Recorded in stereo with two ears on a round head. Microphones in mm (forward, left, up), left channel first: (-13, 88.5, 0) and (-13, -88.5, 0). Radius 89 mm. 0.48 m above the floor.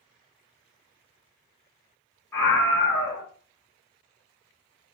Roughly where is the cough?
I don't hear a cough.